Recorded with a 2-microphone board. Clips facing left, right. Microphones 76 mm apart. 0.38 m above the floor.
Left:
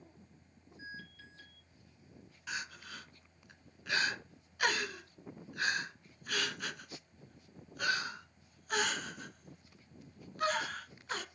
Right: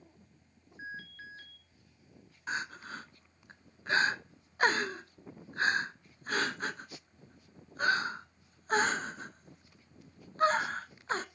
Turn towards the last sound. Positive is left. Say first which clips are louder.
# right 6 dB
turn(degrees=-35)  # may be behind; listen again after turning